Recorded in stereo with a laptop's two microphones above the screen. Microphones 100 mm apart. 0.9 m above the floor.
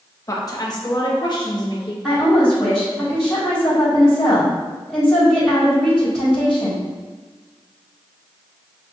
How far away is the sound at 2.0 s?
About 1.8 m.